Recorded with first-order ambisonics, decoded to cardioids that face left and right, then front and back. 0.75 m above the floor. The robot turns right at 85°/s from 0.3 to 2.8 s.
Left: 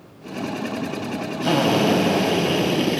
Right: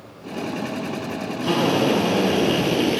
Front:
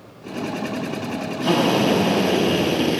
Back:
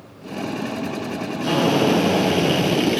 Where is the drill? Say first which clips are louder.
Left 1 dB, even; 75° left, 4.5 m; by 3.0 s 165° right, 4.5 m.